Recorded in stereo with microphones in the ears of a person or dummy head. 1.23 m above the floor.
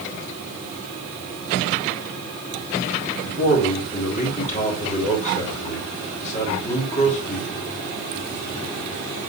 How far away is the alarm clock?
No alarm clock in this recording.